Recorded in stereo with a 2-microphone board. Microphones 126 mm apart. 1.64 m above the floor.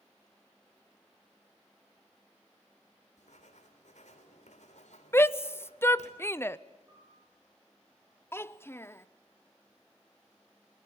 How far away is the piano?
About 9 m.